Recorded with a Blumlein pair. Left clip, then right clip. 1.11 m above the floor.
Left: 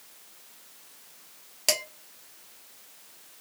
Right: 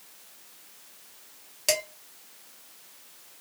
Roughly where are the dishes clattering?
Ahead.